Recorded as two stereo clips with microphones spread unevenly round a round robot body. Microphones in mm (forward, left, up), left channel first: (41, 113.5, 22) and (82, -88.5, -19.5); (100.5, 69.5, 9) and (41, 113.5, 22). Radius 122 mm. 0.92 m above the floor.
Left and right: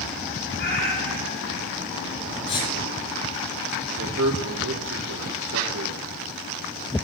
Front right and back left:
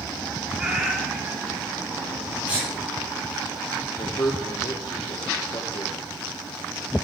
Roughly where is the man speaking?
Right.